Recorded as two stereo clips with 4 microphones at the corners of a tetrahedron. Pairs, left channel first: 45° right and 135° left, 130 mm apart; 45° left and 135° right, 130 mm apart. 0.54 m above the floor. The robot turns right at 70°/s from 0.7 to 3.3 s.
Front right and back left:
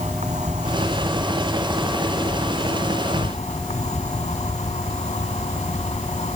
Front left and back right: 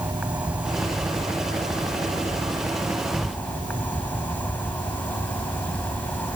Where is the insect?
145° left; by 6.4 s 30° right.